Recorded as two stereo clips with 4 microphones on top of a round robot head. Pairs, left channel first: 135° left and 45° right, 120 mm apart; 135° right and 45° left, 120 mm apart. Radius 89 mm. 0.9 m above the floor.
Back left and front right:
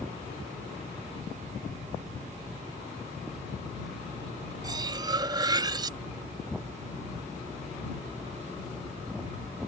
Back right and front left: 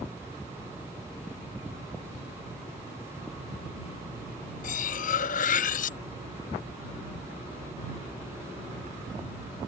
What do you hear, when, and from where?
4.6 s cutlery clinking: 110° right